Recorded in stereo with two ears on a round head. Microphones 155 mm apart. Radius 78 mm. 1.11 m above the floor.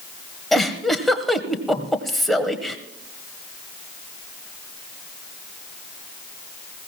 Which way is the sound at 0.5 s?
Centre (ahead or behind).